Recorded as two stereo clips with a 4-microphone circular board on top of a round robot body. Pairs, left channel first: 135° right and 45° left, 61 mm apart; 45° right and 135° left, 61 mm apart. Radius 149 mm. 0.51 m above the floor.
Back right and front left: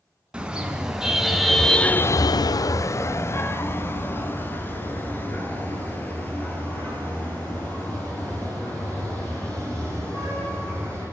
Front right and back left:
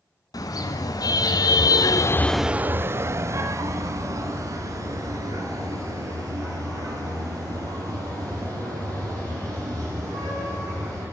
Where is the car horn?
30° right, 2.5 m; by 11.0 s 160° left, 11 m.